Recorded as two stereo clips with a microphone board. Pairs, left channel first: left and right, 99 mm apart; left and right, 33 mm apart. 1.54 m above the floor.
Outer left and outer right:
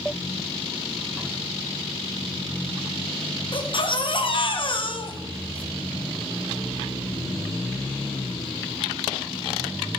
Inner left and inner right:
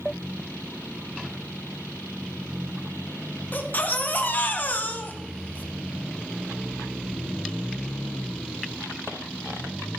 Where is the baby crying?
55° left (ahead or behind), 0.8 m.